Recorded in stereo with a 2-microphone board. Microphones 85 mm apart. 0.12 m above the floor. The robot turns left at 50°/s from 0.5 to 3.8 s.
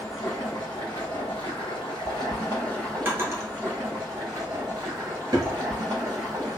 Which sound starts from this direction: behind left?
Running water, at 0.0 s.